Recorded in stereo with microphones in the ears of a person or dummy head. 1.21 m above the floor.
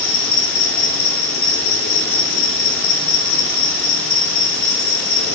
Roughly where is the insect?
Left.